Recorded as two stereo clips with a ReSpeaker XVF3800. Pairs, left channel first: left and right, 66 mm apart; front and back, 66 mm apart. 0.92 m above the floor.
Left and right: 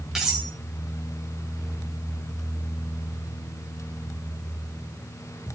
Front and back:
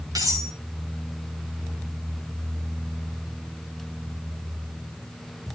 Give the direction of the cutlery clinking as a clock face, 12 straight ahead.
6 o'clock.